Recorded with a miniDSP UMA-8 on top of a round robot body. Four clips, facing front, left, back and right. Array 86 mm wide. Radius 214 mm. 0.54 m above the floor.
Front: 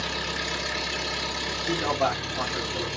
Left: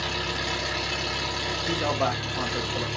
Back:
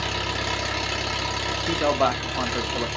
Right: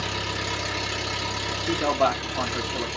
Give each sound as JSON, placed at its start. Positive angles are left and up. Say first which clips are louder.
{"t": 0.0, "sound": "an engine running", "louder": "even, back 3 dB", "azimuth_deg": 170, "distance_m": 2.0}
{"t": 1.7, "sound": "a man speaking", "louder": "right 4 dB, back 3 dB", "azimuth_deg": -165, "distance_m": 1.2}